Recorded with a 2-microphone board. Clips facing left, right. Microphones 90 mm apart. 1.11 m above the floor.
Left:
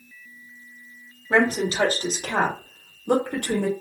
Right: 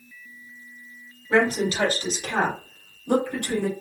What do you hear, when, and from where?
1.3 s a woman speaking: 30° left (ahead or behind), 1.7 m; by 3.7 s 60° left (ahead or behind), 1.1 m